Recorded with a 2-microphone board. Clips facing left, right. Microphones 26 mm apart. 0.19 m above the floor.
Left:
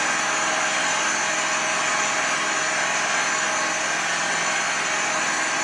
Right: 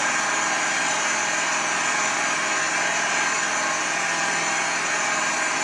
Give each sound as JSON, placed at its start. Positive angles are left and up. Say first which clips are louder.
{"t": 0.0, "sound": "an engine running", "louder": "even", "side_deg": 40, "distance_m": 4.0}